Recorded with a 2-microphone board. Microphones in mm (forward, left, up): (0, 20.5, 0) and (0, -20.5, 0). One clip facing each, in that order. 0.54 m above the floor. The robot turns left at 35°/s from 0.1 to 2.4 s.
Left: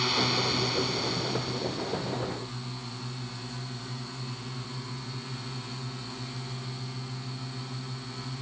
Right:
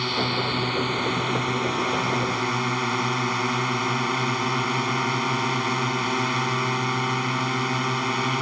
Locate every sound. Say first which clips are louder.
0.0 s a drone: right 3 dB; 10° right; by 8.4 s 90° right